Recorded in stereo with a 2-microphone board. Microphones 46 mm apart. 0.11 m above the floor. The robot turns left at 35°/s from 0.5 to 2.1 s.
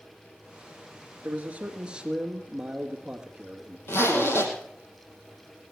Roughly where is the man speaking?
Behind right.